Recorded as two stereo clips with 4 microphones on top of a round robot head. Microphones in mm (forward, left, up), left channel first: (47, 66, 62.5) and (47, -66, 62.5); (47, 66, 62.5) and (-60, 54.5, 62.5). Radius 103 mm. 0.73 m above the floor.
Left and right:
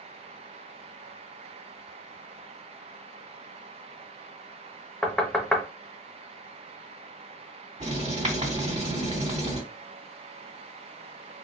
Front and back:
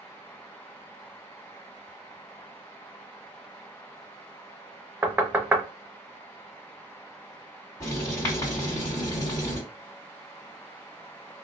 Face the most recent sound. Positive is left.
turn(degrees=-60)